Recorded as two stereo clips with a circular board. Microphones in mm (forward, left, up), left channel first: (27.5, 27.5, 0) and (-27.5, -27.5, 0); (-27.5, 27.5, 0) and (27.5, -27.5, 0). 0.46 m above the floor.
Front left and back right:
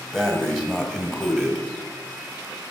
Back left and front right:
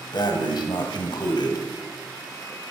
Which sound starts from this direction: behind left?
Breathing, at 0.1 s.